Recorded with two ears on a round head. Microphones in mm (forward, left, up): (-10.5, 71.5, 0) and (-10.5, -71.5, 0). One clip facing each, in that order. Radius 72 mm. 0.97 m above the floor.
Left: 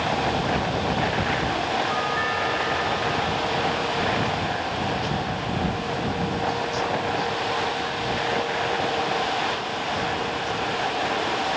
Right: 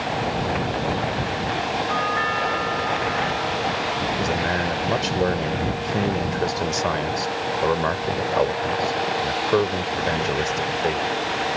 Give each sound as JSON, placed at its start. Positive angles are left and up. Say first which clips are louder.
{"t": 1.9, "sound": "a doorbell", "louder": "right 1 dB", "side_deg": -50}
{"t": 4.2, "sound": "a man speaking", "louder": "right 3 dB", "side_deg": -80}